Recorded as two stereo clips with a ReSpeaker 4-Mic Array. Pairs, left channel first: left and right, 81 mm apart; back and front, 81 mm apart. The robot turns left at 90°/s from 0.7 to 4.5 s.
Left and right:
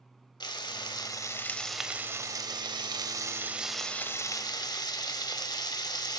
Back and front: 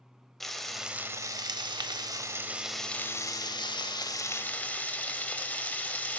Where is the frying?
95° left, 0.6 m; by 6.2 s 110° left, 0.6 m.